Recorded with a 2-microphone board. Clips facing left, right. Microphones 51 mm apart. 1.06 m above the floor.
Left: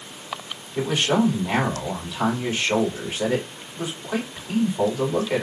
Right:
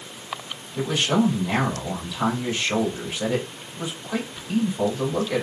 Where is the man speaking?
25° left (ahead or behind), 2.5 m.